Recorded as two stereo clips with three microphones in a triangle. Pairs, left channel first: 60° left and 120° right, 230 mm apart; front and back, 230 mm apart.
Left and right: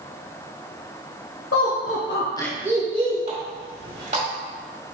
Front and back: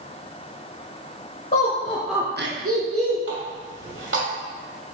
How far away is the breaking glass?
No breaking glass in this recording.